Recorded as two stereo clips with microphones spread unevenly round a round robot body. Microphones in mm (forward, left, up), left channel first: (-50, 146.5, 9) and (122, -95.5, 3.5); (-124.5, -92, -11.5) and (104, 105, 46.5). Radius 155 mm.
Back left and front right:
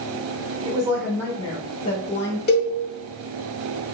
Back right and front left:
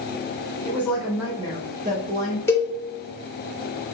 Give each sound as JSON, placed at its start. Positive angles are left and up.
{"t": 0.7, "sound": "a woman speaking", "azimuth_deg": -105, "distance_m": 0.9}
{"t": 2.5, "sound": "a cowbell", "azimuth_deg": 160, "distance_m": 0.9}